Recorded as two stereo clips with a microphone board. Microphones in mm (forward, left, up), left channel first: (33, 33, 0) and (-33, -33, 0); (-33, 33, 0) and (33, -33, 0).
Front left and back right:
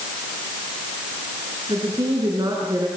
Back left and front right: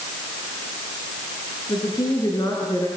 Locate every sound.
1.7 s a woman speaking: straight behind, 4.5 m